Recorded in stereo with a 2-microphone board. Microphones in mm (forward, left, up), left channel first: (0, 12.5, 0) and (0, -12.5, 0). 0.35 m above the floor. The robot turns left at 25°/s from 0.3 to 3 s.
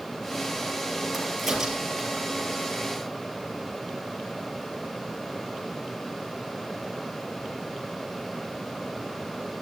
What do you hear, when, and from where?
1.1 s a crack: 5° right (ahead or behind), 6.5 m; by 2.2 s 30° right (ahead or behind), 6.5 m